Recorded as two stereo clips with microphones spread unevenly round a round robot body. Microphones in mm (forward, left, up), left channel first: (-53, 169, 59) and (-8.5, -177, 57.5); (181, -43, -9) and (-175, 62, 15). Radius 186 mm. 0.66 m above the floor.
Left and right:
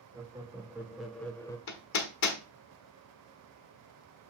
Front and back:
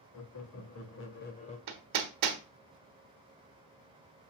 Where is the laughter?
5° right, 1.7 m; by 1.6 s 30° left, 1.1 m.